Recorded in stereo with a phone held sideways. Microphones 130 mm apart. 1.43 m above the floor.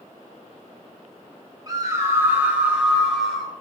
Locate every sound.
1.7 s a scream: 30° right (ahead or behind), 2.5 m; by 3.5 s 5° left (ahead or behind), 3.5 m